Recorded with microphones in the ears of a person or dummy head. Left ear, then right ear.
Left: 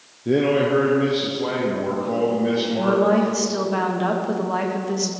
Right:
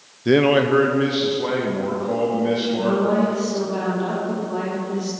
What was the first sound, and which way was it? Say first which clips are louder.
A man speaking: right 3 dB; 60° right (ahead or behind).